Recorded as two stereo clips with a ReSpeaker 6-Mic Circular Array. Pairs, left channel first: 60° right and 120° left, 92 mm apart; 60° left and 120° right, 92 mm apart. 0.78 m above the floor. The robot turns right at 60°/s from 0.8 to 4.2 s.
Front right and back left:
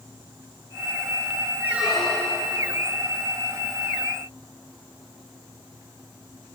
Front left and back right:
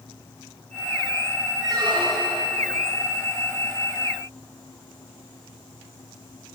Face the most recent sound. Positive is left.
turn(degrees=-15)